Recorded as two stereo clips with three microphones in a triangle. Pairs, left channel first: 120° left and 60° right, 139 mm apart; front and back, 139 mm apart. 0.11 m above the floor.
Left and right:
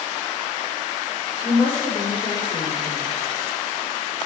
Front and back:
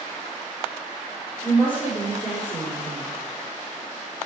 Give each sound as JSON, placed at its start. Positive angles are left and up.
{"t": 1.4, "sound": "a woman speaking", "azimuth_deg": 70, "distance_m": 4.0}